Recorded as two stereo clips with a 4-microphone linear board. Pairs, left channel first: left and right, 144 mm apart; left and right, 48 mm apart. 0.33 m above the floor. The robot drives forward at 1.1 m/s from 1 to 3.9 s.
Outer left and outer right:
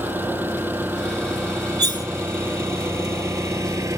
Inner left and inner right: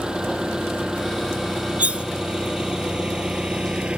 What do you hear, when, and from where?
0.0 s an engine running: 15° right (ahead or behind); by 4.0 s 20° right (ahead or behind)
1.8 s cutlery clinking: 30° right (ahead or behind); by 2.1 s 25° right (ahead or behind)